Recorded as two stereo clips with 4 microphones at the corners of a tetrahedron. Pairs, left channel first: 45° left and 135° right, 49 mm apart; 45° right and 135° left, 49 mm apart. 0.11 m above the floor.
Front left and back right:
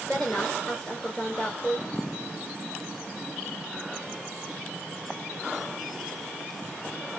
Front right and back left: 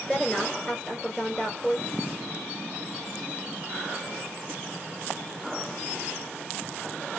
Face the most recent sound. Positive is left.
turn(degrees=25)